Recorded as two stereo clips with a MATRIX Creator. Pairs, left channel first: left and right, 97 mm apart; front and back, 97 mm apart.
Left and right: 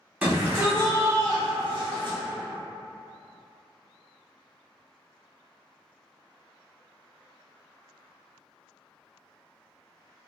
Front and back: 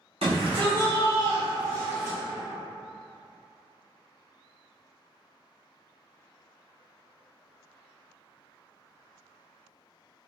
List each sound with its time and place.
0.2 s a shout: 165° right, 1.6 m; by 2.2 s 110° right, 1.2 m